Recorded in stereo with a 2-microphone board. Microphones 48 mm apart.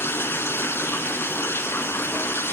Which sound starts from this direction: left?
Running water, at 0.0 s.